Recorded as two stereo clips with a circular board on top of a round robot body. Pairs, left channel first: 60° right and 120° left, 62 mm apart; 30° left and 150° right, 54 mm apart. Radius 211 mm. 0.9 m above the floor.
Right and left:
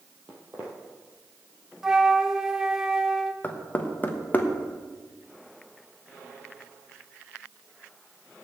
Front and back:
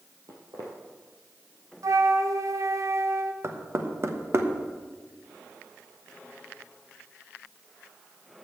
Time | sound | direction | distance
0.3 | footsteps | 170° right | 1.2 m
1.8 | a flute | 160° right | 0.8 m
3.4 | knocking | 120° right | 1.3 m